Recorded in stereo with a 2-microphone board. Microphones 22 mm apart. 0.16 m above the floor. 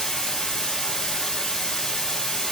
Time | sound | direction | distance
0.0 | running water | 25° left (ahead or behind) | 1.4 m